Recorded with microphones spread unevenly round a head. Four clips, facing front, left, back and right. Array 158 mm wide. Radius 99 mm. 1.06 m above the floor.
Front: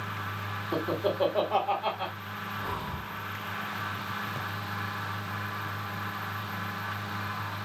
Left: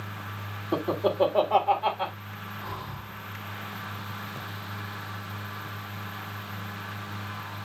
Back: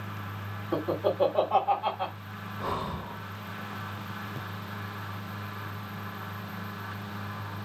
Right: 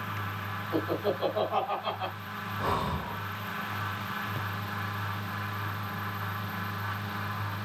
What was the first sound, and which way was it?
Laughter, 95° left.